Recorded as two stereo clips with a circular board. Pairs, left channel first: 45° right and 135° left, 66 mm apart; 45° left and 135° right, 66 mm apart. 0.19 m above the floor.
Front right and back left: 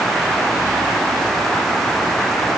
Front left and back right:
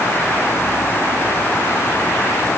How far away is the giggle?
I don't hear a giggle.